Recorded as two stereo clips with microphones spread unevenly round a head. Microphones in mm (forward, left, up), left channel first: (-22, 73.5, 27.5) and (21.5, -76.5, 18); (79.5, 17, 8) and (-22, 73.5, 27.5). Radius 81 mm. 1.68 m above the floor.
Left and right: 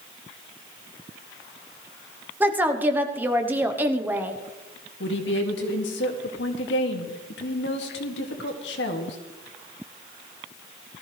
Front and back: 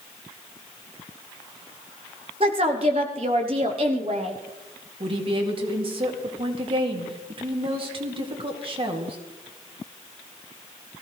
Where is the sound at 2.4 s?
150° right, 1.2 m.